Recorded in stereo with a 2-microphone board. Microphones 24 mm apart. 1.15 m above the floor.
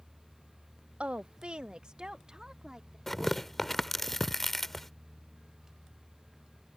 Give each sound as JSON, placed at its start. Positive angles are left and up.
{"t": 1.0, "sound": "a woman speaking", "side_deg": -60}
{"t": 3.1, "sound": "tearing paper", "side_deg": 10}